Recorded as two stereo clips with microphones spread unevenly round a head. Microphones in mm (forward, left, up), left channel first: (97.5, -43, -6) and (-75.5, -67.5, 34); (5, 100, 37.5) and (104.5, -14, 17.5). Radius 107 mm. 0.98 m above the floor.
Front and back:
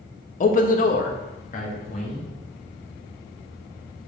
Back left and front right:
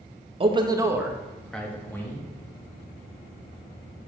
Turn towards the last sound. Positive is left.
turn(degrees=60)